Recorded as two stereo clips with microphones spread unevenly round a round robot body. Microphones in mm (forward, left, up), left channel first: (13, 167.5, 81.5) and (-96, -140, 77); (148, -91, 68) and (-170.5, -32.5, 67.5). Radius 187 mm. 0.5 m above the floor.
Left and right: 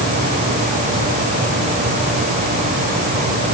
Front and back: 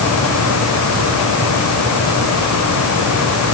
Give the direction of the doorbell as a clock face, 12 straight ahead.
I don't hear a doorbell.